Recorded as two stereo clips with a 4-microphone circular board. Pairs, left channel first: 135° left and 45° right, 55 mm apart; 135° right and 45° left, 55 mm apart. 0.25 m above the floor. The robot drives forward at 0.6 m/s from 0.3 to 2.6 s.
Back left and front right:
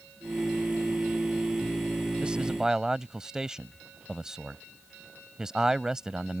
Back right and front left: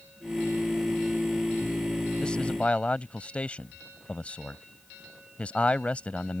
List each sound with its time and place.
2.2 s a man speaking: 85° right; by 6.4 s 110° right